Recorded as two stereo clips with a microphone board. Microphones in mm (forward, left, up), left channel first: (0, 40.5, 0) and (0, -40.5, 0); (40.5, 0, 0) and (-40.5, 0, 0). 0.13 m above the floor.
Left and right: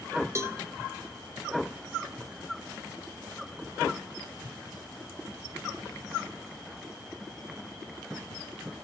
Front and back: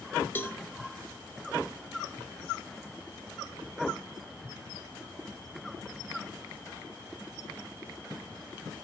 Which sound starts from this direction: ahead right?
A cowbell, at 0.3 s.